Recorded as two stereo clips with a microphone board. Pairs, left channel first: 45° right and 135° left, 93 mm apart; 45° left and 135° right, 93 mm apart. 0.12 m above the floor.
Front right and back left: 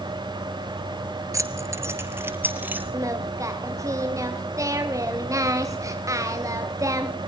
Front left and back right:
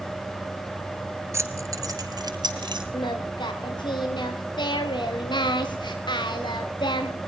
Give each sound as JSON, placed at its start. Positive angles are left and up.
{"t": 1.3, "sound": "keys jangling", "azimuth_deg": 175, "distance_m": 1.5}
{"t": 2.9, "sound": "singing", "azimuth_deg": 80, "distance_m": 3.0}